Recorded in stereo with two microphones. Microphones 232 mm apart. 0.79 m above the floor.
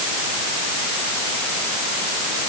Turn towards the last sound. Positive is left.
No sound to turn to.